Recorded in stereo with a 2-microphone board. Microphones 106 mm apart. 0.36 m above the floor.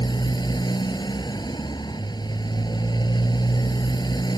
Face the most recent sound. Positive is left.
turn(degrees=40)  # may be behind; listen again after turning